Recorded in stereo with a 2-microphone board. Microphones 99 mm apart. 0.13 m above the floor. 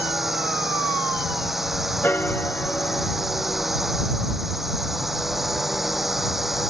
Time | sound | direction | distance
0.0 | a drone | centre (ahead or behind) | ?
2.0 | a piano | 20° left (ahead or behind) | ?